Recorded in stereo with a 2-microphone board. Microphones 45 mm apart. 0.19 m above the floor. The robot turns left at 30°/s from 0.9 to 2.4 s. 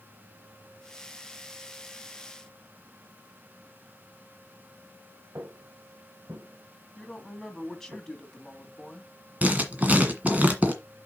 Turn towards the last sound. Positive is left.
turn(degrees=-35)  # may be behind; listen again after turning